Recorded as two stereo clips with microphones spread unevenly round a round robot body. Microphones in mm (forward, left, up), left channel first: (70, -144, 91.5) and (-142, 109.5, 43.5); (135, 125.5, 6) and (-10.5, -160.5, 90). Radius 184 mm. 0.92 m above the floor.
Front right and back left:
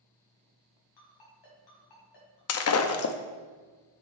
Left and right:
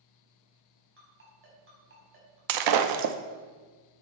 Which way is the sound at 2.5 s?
95° right.